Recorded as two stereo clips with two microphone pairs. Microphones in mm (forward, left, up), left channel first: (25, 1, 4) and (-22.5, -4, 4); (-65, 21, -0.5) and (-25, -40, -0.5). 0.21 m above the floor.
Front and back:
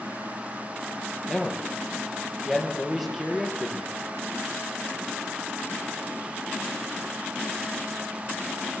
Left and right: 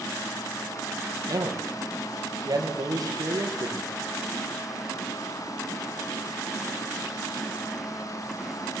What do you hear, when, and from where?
1.3 s a man speaking: 90° right, 4.5 m